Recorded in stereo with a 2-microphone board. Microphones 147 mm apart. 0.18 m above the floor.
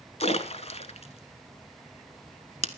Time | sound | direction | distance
0.2 | a splash | 45° left (ahead or behind) | 1.2 m